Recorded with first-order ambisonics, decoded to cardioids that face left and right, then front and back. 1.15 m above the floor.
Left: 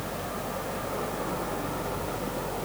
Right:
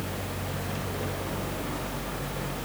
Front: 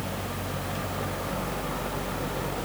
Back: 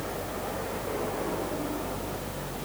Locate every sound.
Only background noise.